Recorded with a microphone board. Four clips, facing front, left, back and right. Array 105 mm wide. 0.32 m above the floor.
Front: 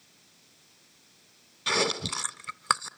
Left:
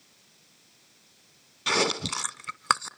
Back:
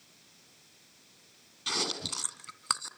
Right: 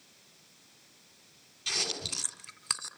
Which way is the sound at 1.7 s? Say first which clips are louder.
Left 13 dB, front 8 dB; 65° left.